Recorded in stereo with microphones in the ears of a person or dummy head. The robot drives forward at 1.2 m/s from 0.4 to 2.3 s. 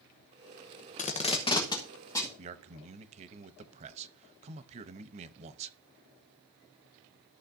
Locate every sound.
1.0 s tape being pulled: 35° left (ahead or behind), 0.8 m; by 2.3 s 15° left (ahead or behind), 2 m
2.4 s a man speaking: 40° right (ahead or behind), 0.7 m